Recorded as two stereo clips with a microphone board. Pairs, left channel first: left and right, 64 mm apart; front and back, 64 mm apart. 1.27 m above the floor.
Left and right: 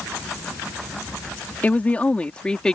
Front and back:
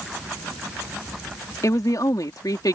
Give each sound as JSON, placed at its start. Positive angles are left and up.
{"t": 1.6, "sound": "a woman speaking", "azimuth_deg": 25}